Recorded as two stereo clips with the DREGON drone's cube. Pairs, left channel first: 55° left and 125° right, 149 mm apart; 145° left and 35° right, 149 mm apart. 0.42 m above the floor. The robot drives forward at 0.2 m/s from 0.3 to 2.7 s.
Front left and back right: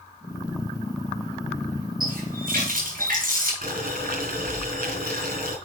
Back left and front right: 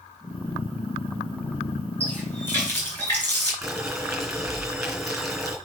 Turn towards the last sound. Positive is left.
turn(degrees=-125)